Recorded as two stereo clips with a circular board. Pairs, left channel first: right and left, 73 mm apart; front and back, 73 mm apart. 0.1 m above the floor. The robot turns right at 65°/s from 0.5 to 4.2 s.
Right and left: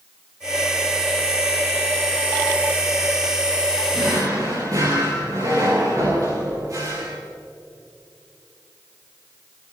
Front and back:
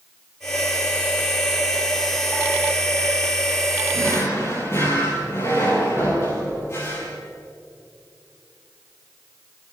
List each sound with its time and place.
3.9 s a drawer: 35° left, 8.5 m; by 7.2 s 50° left, 8.5 m